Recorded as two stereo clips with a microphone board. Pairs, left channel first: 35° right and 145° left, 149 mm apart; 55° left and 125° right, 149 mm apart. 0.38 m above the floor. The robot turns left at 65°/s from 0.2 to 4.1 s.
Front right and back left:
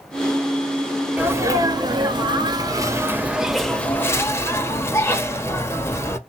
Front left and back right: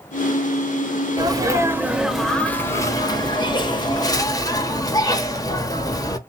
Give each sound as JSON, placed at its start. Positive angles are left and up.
{"t": 1.2, "sound": "a sneeze", "azimuth_deg": -150, "distance_m": 1.0}